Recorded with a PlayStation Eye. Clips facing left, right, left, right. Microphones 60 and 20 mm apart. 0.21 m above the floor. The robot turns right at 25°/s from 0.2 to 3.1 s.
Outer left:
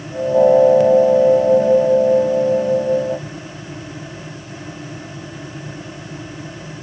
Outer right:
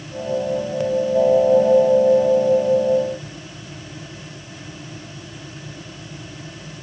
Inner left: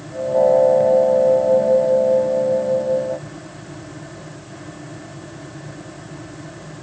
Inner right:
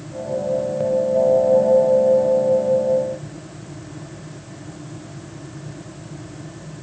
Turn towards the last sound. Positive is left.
No sound to turn to.